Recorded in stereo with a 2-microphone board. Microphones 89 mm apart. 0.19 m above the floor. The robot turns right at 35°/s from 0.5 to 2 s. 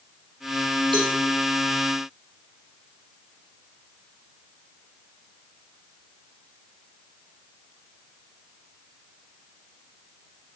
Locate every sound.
0.9 s a cowbell: 65° right (ahead or behind), 4.5 m; by 1.1 s 70° right (ahead or behind), 4.5 m